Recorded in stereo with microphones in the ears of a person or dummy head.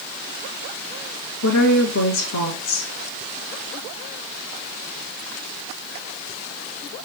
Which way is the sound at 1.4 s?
75° left (ahead or behind).